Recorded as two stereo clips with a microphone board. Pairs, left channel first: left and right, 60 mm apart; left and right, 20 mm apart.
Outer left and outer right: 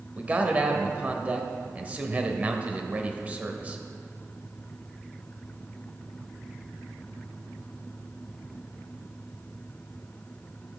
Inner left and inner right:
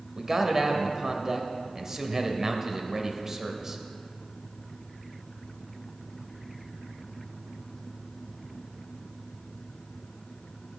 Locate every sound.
0.2 s a man speaking: 25° right (ahead or behind), 1.2 m